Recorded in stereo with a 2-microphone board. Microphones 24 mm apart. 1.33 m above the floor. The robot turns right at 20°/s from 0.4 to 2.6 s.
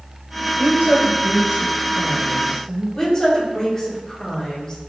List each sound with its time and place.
0.6 s a woman speaking: 75° right, 0.6 m; by 2.9 s 35° right, 0.6 m
3.0 s a woman speaking: 25° left (ahead or behind), 1.6 m